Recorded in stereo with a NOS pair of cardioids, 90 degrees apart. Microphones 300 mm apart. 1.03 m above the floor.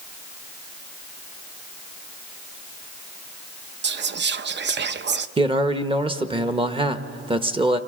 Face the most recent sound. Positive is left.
turn(degrees=-20)